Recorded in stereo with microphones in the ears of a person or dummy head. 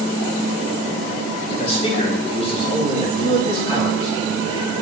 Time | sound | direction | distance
1.5 | a man speaking | 35° left (ahead or behind) | 3.5 m